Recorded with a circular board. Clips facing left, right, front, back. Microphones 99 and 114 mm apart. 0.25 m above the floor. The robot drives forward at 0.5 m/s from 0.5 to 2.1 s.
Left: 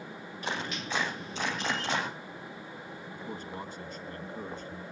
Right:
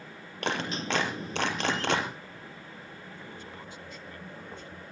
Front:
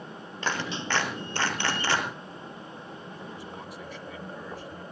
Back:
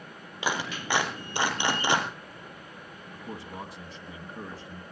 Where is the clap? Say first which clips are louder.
Right 4 dB, even; 100° right, 5 m; by 2.1 s 110° right, 5.5 m.